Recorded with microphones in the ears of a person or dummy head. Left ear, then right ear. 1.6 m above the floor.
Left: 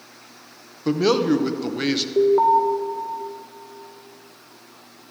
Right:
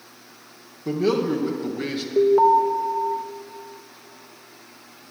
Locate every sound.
0.8 s a man speaking: 40° left (ahead or behind), 0.8 m
2.2 s an alarm: centre (ahead or behind), 0.7 m